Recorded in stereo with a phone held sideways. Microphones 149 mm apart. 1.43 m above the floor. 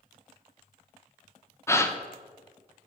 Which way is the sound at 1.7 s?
15° left (ahead or behind).